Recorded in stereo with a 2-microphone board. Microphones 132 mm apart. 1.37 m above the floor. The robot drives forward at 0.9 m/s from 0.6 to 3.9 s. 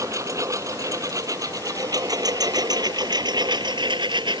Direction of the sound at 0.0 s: 25° right (ahead or behind).